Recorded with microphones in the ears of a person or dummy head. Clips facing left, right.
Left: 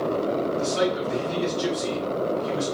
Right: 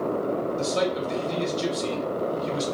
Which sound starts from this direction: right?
A man speaking, at 0.6 s.